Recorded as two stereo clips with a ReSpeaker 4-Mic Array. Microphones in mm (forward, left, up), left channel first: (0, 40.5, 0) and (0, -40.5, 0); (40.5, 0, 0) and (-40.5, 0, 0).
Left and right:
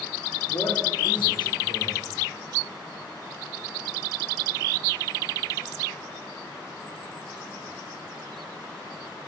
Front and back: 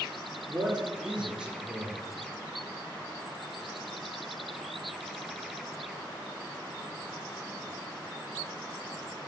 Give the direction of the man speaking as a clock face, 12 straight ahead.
9 o'clock.